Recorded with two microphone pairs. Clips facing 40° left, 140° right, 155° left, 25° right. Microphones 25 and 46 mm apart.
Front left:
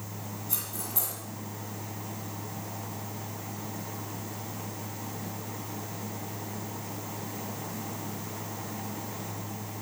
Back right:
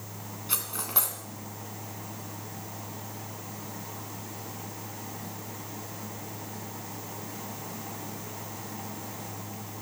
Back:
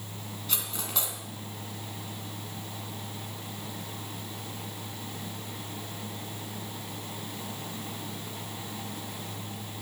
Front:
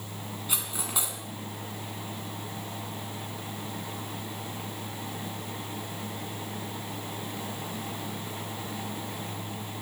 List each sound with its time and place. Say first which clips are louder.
0.5 s cutlery clinking: back right 6 dB, front 1 dB; 100° right, 2.5 m